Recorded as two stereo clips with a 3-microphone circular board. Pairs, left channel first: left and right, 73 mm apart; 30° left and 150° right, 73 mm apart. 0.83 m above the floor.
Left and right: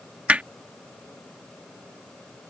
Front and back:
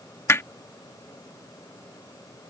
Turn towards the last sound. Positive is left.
turn(degrees=-20)